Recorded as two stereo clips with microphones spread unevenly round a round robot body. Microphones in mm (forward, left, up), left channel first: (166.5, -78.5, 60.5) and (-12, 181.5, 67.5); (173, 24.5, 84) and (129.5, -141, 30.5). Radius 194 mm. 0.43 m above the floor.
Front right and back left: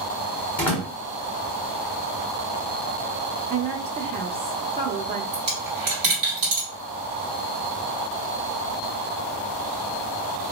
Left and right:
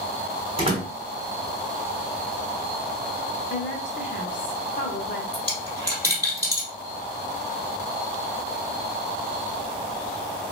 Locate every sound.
0.6 s a door slam: 140° right, 1.1 m
3.5 s a woman speaking: 70° left, 0.7 m
5.3 s a dropped coin: 170° left, 1.6 m